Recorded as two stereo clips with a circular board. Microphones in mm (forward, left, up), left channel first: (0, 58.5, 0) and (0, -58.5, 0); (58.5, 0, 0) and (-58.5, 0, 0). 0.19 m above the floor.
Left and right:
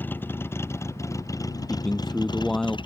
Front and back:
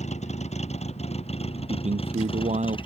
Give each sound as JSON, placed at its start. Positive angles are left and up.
{"t": 0.0, "sound": "a vehicle", "azimuth_deg": 15}
{"t": 1.7, "sound": "a man speaking", "azimuth_deg": 175}